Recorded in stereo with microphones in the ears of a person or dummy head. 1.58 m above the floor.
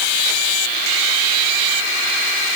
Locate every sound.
Only background noise.